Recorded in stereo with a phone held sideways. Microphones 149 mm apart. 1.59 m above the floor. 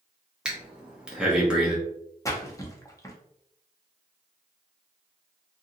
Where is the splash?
20° left (ahead or behind), 0.7 m.